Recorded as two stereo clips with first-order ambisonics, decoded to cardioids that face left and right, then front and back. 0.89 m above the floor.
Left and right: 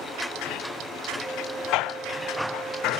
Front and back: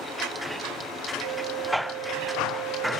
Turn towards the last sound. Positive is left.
turn(degrees=-165)